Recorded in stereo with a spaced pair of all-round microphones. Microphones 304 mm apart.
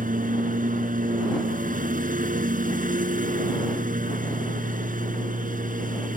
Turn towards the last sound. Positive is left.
turn(degrees=-25)  # may be behind; listen again after turning